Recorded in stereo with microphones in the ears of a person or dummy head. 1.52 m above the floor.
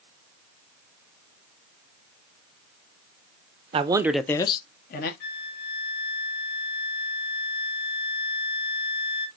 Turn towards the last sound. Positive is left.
turn(degrees=50)  # may be behind; listen again after turning